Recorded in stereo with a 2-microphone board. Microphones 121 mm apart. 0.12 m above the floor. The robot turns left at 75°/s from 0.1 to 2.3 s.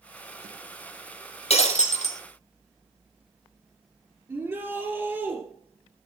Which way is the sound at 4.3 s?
20° right (ahead or behind).